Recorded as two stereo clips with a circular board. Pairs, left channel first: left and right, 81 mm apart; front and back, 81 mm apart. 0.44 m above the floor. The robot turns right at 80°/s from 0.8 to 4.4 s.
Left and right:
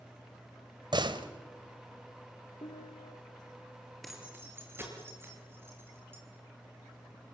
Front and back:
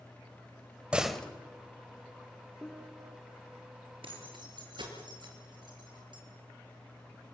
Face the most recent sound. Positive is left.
turn(degrees=-155)